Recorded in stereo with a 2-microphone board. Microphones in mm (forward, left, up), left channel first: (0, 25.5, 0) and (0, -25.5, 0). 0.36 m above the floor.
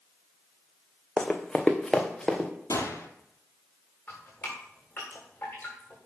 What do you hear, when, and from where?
1.2 s running footsteps: 10° left (ahead or behind), 1.1 m; by 2.5 s 15° left (ahead or behind), 2.5 m
2.7 s a gunshot: 70° left (ahead or behind), 1.6 m
4.1 s dripping: 35° left (ahead or behind), 7 m